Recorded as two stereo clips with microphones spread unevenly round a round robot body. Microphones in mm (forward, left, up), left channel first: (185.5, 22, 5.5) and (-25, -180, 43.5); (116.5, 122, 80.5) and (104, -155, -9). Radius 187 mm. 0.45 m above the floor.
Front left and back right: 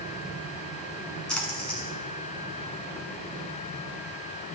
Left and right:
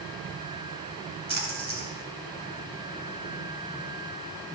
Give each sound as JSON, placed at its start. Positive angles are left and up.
{"t": 1.3, "sound": "a splash", "azimuth_deg": -45, "distance_m": 6.0}